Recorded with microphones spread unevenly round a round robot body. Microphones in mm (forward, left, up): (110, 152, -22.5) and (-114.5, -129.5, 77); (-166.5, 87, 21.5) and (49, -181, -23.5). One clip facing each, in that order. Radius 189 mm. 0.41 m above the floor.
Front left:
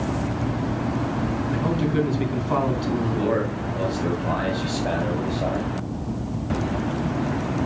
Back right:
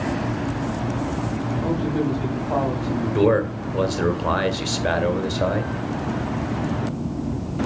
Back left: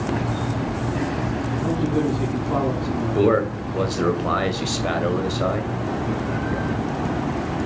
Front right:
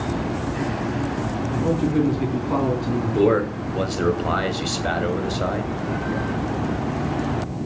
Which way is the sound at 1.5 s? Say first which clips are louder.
Even, front right 2 dB; 25° left.